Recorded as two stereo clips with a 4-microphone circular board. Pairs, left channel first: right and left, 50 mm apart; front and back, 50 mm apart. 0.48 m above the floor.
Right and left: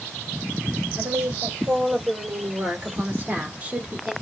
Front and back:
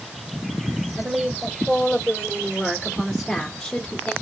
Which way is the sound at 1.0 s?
110° left.